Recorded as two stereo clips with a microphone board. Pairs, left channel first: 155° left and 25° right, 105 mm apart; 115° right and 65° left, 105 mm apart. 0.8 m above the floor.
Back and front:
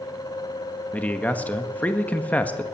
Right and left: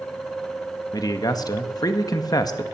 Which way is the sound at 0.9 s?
135° right.